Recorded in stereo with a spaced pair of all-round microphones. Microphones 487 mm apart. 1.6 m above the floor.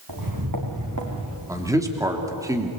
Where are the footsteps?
45° right (ahead or behind), 4 m; by 1.4 s 30° right (ahead or behind), 4.5 m.